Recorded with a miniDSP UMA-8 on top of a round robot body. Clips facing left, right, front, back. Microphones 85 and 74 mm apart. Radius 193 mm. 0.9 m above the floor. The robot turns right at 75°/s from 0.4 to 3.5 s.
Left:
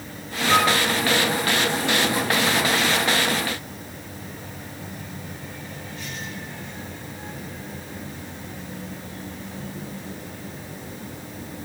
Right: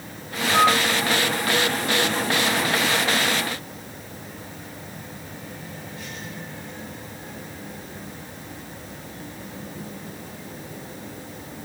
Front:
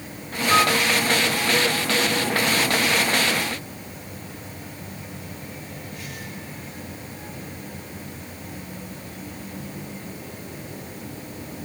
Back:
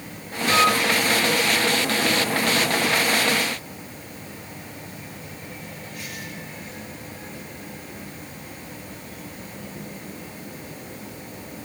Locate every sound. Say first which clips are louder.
0.5 s a flute: right 1 dB, even; 65° left, 5 m; by 0.8 s 85° left, 5 m